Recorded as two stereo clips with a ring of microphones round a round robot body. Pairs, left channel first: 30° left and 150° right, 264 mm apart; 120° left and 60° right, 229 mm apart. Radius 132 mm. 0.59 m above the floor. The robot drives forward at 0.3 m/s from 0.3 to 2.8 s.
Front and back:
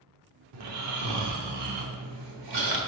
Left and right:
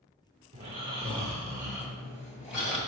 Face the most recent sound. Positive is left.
turn(degrees=-150)